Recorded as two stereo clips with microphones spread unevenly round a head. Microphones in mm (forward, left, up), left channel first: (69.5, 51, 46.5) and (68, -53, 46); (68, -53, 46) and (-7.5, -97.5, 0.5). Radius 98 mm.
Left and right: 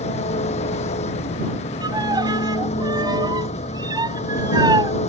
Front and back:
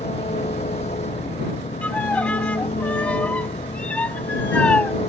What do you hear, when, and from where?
0.0 s an engine running: 85° left
1.8 s a violin: 40° right